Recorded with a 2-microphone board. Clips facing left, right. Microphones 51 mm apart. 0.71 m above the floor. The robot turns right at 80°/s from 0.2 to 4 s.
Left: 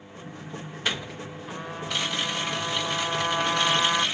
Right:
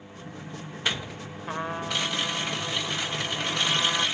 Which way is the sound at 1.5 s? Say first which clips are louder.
Right 4 dB; 50° right.